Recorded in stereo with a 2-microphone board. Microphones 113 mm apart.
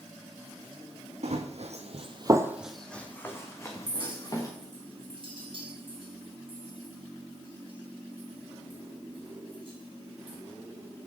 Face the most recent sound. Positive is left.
turn(degrees=-50)  # may be behind; listen again after turning